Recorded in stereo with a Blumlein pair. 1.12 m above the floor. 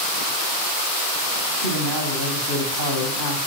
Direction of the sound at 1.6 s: 70° right.